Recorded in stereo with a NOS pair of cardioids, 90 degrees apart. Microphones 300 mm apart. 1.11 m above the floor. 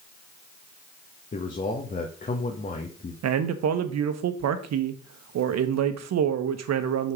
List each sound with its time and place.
1.3 s a man speaking: 25° left, 1.5 m
3.2 s a man speaking: 65° right, 1.1 m